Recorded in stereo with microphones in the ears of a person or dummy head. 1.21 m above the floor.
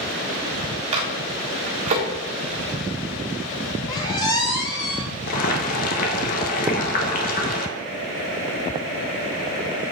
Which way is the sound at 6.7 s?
20° right (ahead or behind).